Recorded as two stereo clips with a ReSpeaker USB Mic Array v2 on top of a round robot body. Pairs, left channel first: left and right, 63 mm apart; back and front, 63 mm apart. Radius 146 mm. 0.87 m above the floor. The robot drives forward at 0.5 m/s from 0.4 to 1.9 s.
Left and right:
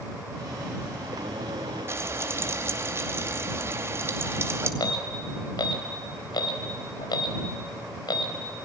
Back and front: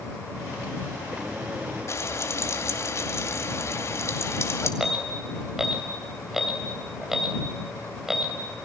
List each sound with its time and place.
1.9 s frying: 140° right, 2.5 m
4.8 s an alarm: 85° left, 3.5 m